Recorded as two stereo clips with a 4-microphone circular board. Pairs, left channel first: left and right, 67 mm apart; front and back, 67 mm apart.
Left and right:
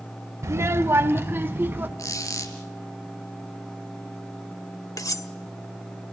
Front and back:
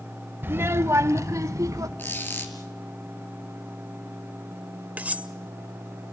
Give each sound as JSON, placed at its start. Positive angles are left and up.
{"t": 0.4, "sound": "a child speaking", "azimuth_deg": -125, "distance_m": 0.8}
{"t": 2.0, "sound": "a squeak", "azimuth_deg": 60, "distance_m": 2.5}
{"t": 5.0, "sound": "cutlery clinking", "azimuth_deg": 115, "distance_m": 0.7}